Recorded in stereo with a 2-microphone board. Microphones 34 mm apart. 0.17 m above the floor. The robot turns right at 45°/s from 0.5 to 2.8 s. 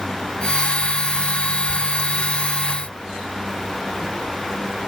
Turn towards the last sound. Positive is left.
No sound to turn to.